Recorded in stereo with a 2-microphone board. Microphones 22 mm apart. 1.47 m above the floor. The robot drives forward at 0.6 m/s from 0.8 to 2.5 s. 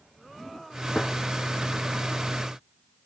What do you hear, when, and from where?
0.9 s a gunshot: 40° left (ahead or behind), 0.5 m; by 1.1 s 50° left (ahead or behind), 0.5 m